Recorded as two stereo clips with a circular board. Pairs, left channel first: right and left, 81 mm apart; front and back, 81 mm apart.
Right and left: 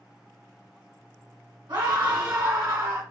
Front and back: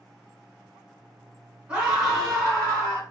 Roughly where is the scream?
Left.